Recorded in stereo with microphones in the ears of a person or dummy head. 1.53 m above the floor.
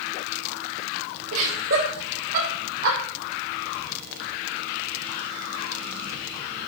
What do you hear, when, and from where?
1.3 s laughter: 80° right, 7 m; by 3.0 s 60° right (ahead or behind), 7.5 m